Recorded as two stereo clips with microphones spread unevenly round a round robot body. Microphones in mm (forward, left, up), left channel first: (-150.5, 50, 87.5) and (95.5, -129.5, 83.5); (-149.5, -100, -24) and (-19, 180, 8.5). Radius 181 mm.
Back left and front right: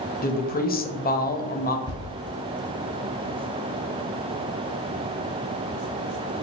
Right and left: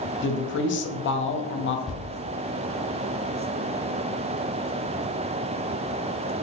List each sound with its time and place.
0.2 s a woman speaking: 155° right, 0.7 m
1.9 s a thud: 155° left, 1.7 m